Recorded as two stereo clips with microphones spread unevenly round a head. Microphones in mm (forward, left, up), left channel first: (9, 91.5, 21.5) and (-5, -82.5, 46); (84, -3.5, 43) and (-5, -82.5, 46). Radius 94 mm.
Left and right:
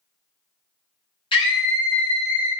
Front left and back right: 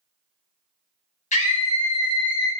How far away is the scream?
About 0.9 m.